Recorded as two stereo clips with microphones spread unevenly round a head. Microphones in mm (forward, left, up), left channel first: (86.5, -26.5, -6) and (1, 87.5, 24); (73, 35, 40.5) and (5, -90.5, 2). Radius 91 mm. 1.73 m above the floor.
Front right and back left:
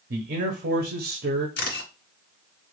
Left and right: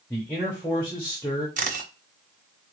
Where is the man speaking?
140° left, 0.8 m.